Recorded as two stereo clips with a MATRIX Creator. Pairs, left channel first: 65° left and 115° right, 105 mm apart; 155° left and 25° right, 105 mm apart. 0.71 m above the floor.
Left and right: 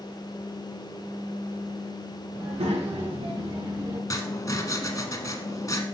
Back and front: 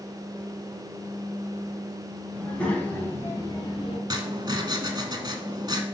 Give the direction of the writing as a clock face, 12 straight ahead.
11 o'clock.